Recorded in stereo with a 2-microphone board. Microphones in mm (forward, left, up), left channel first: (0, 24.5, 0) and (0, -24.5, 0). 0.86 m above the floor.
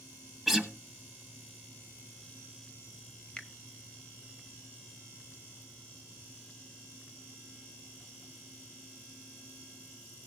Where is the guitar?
Centre (ahead or behind), 1.5 m.